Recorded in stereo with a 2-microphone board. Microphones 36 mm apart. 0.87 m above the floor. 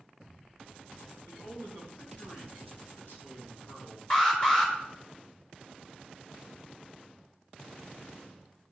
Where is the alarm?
20° left (ahead or behind), 4.5 m.